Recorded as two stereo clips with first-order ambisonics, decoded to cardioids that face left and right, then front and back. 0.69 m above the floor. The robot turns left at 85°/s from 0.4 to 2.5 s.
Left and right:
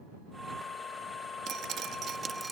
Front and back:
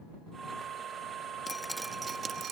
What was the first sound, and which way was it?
Dripping, 70° right.